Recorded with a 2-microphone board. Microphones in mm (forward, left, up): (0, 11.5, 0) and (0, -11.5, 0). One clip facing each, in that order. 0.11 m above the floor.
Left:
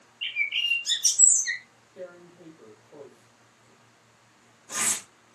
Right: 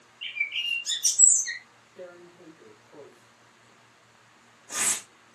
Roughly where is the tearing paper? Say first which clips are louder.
Left 2 dB; left.